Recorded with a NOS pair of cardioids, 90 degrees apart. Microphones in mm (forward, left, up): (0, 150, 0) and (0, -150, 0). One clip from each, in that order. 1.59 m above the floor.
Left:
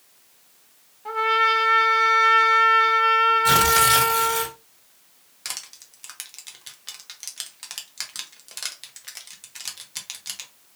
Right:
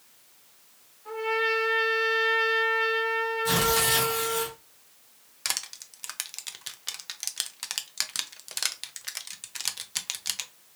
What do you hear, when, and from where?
1.1 s a trumpet: 60° left, 1.2 m
3.5 s tearing paper: 50° left, 1.4 m
5.5 s crushing: 20° right, 0.5 m